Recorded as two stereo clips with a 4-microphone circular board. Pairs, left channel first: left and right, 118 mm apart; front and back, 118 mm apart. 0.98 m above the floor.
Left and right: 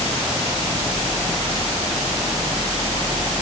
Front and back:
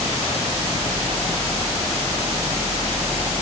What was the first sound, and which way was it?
Only background noise.